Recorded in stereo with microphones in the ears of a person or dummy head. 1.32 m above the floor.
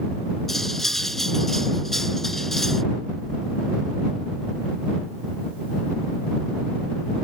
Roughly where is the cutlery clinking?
Centre.